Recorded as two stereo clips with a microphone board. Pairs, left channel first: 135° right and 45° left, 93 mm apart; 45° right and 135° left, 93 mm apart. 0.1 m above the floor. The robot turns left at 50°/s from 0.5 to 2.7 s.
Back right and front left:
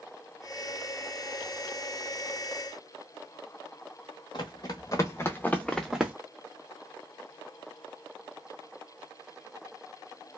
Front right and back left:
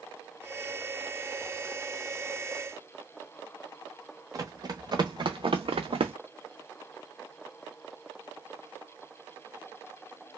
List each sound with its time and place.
4.3 s running footsteps: 175° right, 1.0 m; by 6.1 s 125° left, 0.6 m